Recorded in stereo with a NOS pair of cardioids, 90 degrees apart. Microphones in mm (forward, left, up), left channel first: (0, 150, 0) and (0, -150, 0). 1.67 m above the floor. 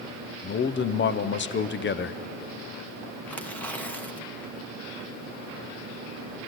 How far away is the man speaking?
About 0.7 m.